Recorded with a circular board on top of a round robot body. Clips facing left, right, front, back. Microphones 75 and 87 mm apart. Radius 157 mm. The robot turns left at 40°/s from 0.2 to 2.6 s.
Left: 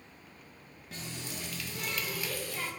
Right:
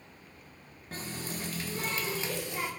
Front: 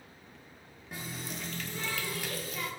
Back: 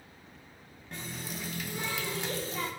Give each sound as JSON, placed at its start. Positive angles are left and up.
{"t": 0.9, "sound": "a running tap", "azimuth_deg": -80, "distance_m": 0.6}